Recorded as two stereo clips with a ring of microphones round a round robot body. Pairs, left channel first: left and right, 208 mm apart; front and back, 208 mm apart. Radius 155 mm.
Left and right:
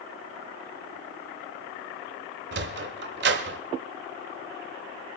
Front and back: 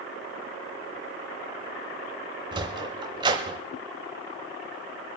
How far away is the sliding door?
About 0.9 m.